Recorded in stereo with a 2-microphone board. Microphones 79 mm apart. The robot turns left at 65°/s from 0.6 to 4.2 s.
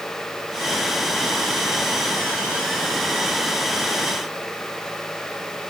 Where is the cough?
I don't hear a cough.